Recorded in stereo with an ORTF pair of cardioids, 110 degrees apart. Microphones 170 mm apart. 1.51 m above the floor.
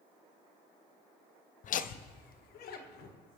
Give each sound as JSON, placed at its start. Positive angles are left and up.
{"t": 1.6, "sound": "laughter", "azimuth_deg": 50, "distance_m": 0.6}